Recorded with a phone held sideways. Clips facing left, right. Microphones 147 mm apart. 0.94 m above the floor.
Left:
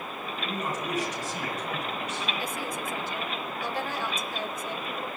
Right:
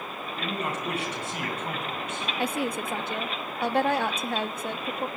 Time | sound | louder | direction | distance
0.4 | a man speaking | right 1 dB | 65° right (ahead or behind) | 9 m
2.4 | a woman speaking | right 5 dB | 60° right (ahead or behind) | 1.6 m